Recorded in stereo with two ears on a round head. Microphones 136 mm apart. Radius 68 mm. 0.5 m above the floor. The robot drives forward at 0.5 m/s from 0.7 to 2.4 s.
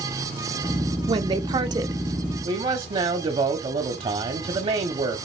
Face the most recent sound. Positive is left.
turn(degrees=-35)  # may be behind; listen again after turning